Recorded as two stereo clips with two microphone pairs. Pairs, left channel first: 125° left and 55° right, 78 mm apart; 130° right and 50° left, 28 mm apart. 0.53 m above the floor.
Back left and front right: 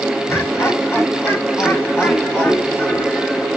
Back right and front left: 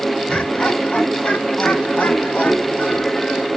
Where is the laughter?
Straight behind, 4.5 m; by 3.5 s 165° right, 7.5 m.